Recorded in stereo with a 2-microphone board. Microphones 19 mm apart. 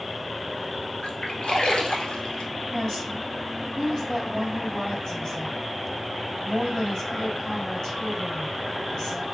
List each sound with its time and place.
1.0 s a splash: 55° left (ahead or behind), 1.2 m
2.7 s a woman speaking: 45° left (ahead or behind), 3 m